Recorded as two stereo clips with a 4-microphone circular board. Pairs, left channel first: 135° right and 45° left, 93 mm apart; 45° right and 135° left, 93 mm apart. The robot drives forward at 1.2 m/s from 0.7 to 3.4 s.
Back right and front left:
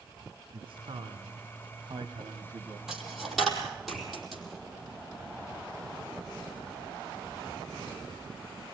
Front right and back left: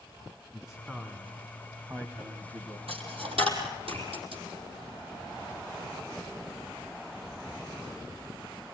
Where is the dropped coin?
130° left, 4 m; by 4.4 s 135° left, 4.5 m.